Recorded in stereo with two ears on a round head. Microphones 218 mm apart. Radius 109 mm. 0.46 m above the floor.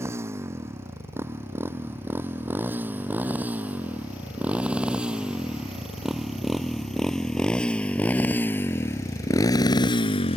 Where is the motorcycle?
10° right (ahead or behind); by 10.4 s 25° left (ahead or behind).